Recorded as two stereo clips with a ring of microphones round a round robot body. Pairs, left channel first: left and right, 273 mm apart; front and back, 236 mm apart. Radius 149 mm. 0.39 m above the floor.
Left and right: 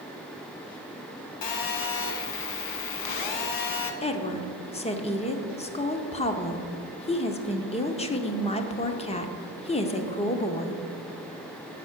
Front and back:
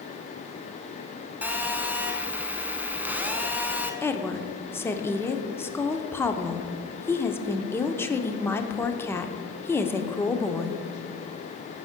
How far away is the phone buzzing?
About 1.2 m.